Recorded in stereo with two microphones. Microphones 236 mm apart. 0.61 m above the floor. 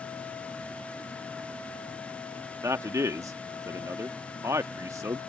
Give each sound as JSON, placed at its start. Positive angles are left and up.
{"t": 2.6, "sound": "a man speaking", "side_deg": -10}